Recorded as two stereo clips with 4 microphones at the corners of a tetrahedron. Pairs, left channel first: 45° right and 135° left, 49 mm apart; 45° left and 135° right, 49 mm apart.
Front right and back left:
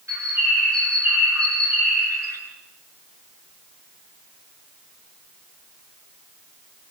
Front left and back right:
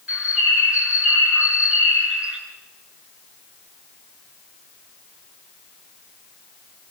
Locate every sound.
0.1 s a bird: 155° left, 5 m